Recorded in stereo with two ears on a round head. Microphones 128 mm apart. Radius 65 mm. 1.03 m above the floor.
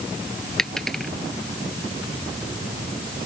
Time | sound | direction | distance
0.6 | a dropped coin | 5° left (ahead or behind) | ?